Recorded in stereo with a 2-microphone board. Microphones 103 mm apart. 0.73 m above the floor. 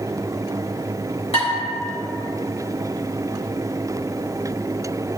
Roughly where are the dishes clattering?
Left.